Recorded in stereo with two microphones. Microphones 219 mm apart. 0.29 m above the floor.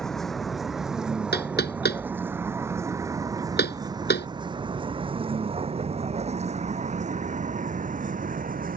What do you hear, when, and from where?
0.0 s a vehicle: centre (ahead or behind); by 8.8 s 40° right (ahead or behind)
1.3 s knocking: 45° left (ahead or behind)